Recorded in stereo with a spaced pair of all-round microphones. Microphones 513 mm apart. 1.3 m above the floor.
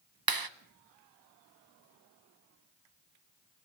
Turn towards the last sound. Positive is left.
turn(degrees=-45)  # may be behind; listen again after turning